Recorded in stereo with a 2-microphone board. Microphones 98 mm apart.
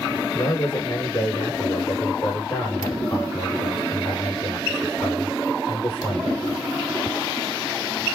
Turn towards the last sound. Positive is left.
turn(degrees=45)  # may be behind; listen again after turning